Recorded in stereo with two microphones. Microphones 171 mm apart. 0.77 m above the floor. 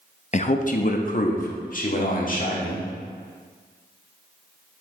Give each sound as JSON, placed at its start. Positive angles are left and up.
{"t": 0.3, "sound": "a man speaking", "side_deg": 40, "distance_m": 0.5}